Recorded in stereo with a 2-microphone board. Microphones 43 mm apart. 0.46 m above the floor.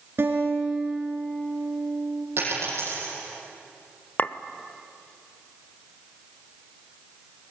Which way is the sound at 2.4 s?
60° right (ahead or behind).